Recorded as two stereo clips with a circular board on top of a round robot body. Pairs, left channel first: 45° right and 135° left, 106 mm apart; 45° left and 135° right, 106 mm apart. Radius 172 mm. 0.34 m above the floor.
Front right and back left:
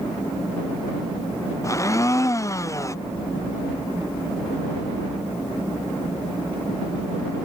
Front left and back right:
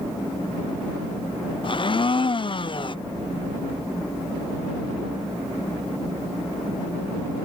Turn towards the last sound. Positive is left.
turn(degrees=15)